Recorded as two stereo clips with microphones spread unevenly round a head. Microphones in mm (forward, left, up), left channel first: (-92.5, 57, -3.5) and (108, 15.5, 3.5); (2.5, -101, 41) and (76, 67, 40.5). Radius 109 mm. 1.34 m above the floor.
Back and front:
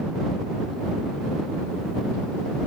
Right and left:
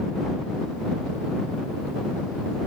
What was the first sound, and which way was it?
Only background noise.